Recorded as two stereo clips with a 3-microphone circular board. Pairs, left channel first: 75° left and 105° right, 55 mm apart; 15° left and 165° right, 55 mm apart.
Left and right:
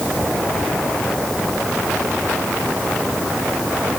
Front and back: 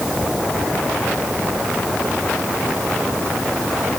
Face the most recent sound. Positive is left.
No sound to turn to.